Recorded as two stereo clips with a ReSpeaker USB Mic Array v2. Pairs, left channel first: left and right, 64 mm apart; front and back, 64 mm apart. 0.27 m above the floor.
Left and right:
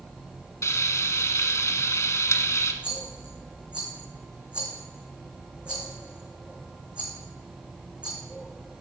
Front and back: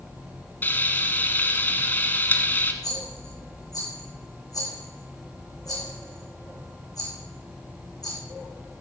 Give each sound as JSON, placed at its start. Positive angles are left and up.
{"t": 0.6, "sound": "frying", "azimuth_deg": 55, "distance_m": 1.3}
{"t": 2.8, "sound": "a rattle", "azimuth_deg": -15, "distance_m": 4.0}